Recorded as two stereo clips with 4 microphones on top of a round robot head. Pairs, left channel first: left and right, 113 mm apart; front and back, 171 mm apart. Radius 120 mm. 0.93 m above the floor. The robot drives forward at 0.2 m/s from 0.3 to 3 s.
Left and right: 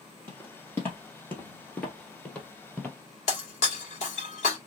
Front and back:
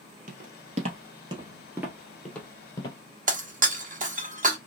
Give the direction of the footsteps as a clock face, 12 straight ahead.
7 o'clock.